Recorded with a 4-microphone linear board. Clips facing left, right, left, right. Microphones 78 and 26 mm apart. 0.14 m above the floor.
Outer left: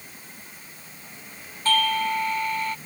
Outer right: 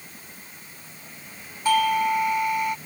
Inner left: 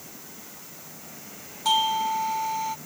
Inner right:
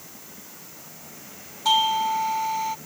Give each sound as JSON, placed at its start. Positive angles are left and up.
{"t": 1.6, "sound": "a doorbell", "side_deg": -10}